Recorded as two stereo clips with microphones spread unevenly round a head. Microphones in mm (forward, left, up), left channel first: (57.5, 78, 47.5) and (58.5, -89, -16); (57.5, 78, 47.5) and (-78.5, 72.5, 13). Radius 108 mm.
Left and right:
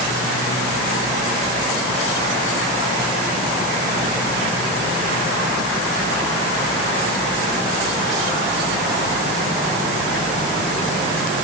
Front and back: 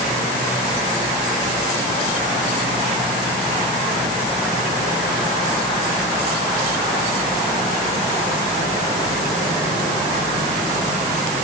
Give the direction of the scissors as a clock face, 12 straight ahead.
No scissors in this recording.